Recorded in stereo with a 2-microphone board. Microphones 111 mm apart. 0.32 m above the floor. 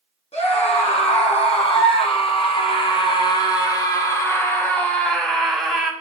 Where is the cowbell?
No cowbell in this recording.